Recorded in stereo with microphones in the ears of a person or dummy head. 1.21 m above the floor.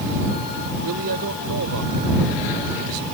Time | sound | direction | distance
0.8 | a man speaking | 85° right | ?